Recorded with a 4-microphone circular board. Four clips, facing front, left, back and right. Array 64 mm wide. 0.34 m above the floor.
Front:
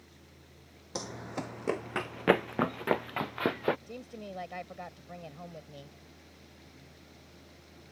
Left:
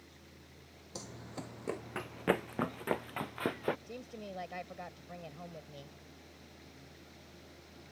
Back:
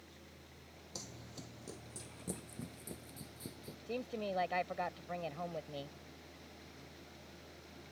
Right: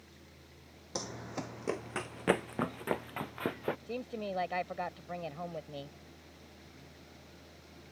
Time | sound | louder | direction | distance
0.9 | running footsteps | right 6 dB, front 14 dB | 40° right | ?
3.9 | a woman speaking | right 7 dB, back 3 dB | 115° right | ?